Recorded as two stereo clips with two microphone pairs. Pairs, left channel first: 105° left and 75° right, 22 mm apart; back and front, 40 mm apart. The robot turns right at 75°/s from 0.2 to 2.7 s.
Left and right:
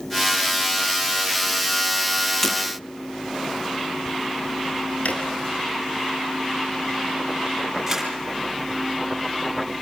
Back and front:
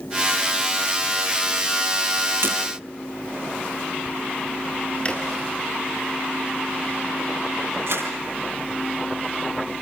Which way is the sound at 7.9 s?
10° left.